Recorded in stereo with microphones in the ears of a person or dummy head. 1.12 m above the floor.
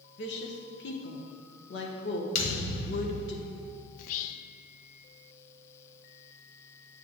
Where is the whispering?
45° left (ahead or behind), 0.5 m.